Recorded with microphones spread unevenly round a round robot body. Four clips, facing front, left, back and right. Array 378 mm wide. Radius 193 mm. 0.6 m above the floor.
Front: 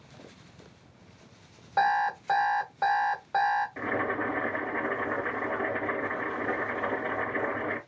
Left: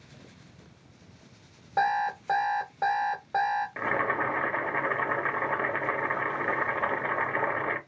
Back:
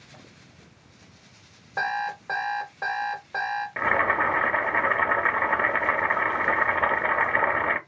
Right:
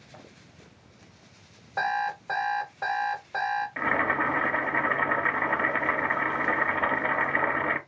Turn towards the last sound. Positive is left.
turn(degrees=180)